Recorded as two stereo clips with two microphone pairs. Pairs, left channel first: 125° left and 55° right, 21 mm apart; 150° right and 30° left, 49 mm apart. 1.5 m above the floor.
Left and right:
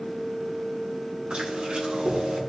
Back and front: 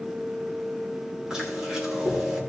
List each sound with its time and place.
1.3 s chewing: 45° right, 4 m